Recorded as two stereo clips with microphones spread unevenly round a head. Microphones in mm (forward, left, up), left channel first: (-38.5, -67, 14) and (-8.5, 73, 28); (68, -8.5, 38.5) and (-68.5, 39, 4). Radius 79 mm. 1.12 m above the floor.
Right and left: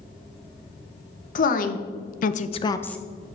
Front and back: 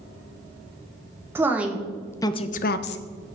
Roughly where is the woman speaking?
Behind right.